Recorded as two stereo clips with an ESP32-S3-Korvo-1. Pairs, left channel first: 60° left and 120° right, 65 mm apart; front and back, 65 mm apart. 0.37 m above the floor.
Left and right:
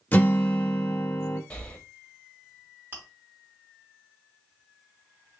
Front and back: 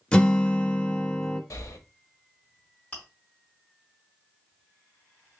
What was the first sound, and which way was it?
A guitar, 45° left.